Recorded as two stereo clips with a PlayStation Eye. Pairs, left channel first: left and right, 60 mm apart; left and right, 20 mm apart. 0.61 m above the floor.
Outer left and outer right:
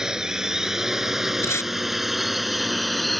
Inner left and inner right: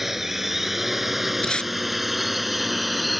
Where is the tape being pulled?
50° left (ahead or behind).